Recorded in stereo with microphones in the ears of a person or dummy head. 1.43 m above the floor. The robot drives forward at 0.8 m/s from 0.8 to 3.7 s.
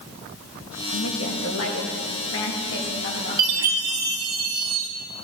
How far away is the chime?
About 0.8 m.